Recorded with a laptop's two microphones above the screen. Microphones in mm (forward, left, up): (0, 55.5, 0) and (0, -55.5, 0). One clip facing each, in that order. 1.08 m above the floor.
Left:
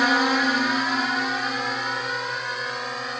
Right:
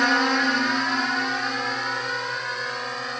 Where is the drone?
5° left (ahead or behind); by 3.2 s centre (ahead or behind).